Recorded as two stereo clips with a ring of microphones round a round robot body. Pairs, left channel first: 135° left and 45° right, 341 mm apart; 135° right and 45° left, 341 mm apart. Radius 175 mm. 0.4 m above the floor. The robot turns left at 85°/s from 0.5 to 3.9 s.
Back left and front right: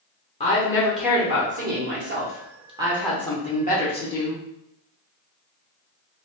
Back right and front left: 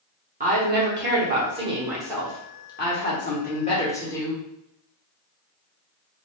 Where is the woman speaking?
85° left, 0.8 m; by 4.4 s 155° left, 0.8 m.